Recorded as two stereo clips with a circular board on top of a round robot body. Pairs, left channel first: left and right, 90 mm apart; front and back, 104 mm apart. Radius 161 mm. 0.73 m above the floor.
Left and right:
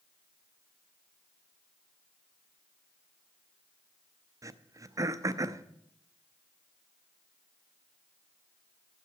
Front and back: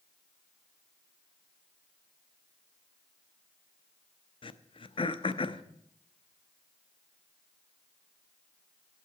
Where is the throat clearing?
35° right, 0.7 m.